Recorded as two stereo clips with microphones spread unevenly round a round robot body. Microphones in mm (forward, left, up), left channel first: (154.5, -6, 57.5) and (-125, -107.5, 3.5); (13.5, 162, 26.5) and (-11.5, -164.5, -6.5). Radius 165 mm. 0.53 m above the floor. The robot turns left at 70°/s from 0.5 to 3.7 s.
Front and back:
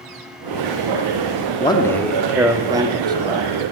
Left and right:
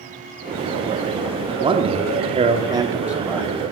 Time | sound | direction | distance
1.6 | a man speaking | 55° right | 0.9 m